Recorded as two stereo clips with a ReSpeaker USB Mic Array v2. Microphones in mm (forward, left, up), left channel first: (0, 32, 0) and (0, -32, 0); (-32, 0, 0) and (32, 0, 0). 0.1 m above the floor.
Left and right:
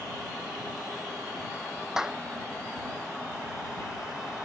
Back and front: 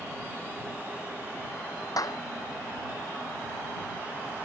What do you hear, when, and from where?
2.0 s a clap: 170° right